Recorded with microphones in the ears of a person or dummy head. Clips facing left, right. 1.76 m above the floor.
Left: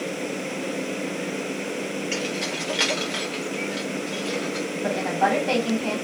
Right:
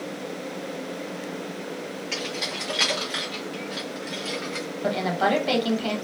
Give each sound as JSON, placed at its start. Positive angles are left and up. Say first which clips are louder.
{"t": 2.1, "sound": "keys jangling", "louder": "left 4 dB", "side_deg": 20, "distance_m": 1.4}
{"t": 4.8, "sound": "a woman speaking", "louder": "even", "side_deg": -40, "distance_m": 1.2}